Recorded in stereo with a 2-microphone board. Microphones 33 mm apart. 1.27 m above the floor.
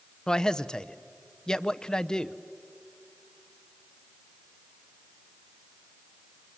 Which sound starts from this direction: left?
A man speaking, at 0.3 s.